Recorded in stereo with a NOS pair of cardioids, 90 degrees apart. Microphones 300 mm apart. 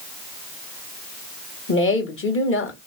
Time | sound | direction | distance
1.7 | a woman speaking | 45° left | 1.4 m